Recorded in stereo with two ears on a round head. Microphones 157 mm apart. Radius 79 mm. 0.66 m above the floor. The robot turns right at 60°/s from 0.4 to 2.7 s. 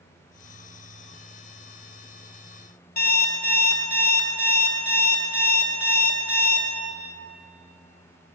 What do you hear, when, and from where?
3.0 s an alarm clock: 55° left (ahead or behind), 0.6 m